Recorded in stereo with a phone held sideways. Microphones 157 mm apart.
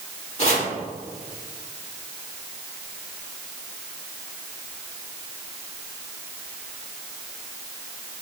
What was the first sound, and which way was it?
Chopping, 45° left (ahead or behind).